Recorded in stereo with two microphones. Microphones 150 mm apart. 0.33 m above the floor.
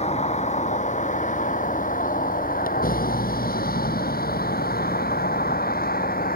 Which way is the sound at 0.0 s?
45° left (ahead or behind).